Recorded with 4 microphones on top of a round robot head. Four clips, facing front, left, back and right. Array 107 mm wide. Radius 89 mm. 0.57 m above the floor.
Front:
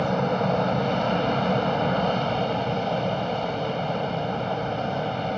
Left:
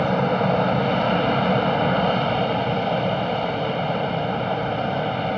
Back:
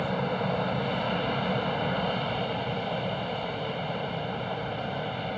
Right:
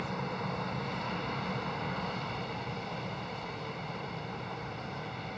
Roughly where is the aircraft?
Left.